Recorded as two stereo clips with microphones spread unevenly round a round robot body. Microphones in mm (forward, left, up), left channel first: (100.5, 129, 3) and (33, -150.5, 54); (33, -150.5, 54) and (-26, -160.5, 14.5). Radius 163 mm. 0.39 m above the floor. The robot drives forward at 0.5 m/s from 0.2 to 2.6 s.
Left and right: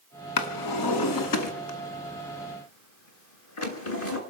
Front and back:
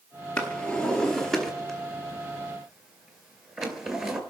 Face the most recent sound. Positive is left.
turn(degrees=125)